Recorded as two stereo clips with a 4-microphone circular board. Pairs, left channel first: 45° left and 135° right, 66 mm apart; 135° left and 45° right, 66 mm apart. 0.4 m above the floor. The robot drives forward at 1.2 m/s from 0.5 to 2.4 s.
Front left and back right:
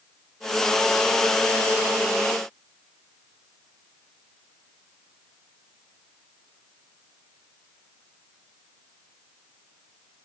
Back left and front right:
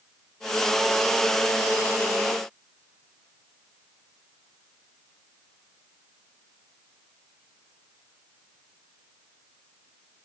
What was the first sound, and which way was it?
Only background noise.